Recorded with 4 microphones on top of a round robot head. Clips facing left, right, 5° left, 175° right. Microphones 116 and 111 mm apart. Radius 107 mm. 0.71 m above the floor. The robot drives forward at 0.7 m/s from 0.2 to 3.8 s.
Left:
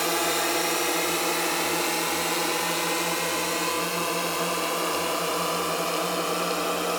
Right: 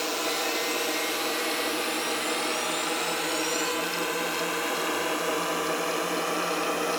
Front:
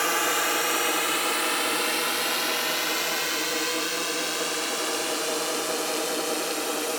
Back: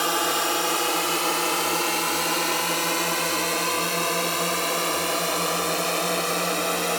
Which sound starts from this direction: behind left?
A drone, at 0.0 s.